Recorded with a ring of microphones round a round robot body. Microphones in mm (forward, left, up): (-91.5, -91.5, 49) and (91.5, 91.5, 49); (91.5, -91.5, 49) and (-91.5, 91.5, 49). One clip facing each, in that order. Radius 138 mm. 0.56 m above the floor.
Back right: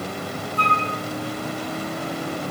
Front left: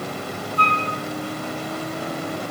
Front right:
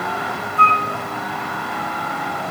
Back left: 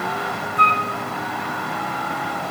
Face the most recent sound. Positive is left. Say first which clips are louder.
# even, front right 3 dB
turn(degrees=-150)